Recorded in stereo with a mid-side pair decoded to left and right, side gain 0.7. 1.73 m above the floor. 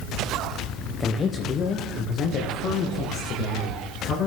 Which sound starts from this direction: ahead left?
A man speaking, at 1.0 s.